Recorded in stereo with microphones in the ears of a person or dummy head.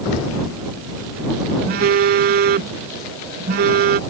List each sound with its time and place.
1.7 s a phone buzzing: 50° right (ahead or behind)